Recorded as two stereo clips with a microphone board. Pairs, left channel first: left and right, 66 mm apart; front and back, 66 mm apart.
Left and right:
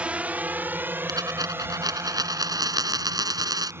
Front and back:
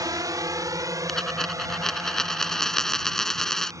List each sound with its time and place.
0.0 s a drone: 160° right; by 3.8 s 140° right
1.1 s a dropped coin: 80° right